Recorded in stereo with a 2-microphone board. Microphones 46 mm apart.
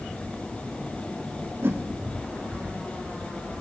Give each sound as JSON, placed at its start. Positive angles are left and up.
{"t": 1.6, "sound": "a whoosh", "side_deg": -60, "distance_m": 0.6}